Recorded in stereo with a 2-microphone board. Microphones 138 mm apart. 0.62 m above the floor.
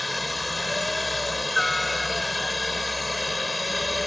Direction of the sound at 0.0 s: Centre (ahead or behind).